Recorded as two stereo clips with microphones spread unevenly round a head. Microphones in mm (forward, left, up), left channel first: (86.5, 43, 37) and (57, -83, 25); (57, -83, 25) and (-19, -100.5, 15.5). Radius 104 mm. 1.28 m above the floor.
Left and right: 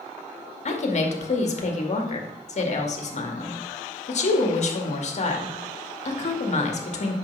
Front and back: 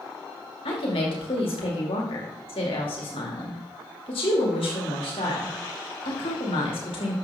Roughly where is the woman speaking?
Ahead left.